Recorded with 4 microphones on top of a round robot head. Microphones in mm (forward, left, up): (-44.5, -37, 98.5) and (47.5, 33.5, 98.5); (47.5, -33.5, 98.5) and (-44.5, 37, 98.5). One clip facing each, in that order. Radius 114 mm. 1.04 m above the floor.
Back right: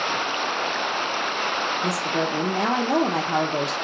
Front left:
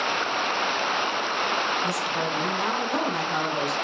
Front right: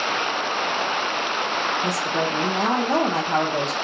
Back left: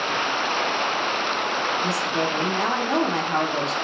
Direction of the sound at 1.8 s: 110° right.